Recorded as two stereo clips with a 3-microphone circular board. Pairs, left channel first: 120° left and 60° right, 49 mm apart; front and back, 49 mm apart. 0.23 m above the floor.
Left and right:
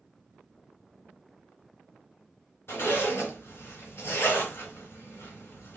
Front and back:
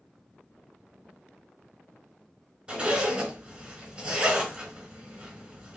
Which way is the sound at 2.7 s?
115° left.